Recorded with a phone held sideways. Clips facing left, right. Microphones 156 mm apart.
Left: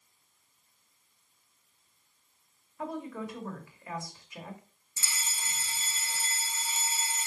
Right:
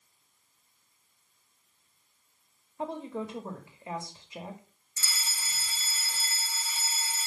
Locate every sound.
2.8 s a woman speaking: 25° right (ahead or behind), 2 m
5.0 s a fire alarm: 20° left (ahead or behind), 1.6 m